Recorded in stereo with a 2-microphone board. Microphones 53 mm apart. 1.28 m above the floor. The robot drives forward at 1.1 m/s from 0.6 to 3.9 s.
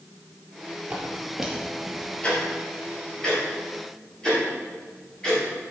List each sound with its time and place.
0.9 s footsteps: 20° right (ahead or behind), 2.0 m; by 2.1 s 15° left (ahead or behind), 1.4 m
2.2 s ticking: 25° left (ahead or behind), 2.5 m; by 5.4 s 15° left (ahead or behind), 4 m